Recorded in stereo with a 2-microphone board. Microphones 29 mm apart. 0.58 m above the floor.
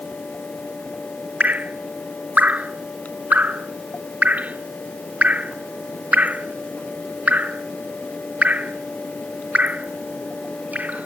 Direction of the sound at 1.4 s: 65° right (ahead or behind).